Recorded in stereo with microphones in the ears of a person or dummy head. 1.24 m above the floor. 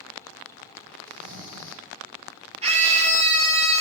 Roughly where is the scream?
Right.